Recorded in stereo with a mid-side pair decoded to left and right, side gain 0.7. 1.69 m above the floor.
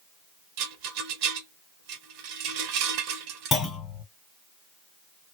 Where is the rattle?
70° right, 0.8 m.